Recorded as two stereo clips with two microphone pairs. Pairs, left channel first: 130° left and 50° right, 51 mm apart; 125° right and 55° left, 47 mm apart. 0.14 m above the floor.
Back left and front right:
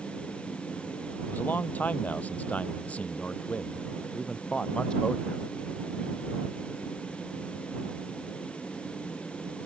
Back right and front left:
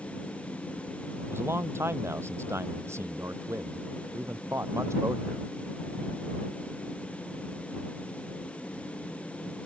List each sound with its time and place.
1.3 s a man speaking: 75° left; by 5.4 s 55° left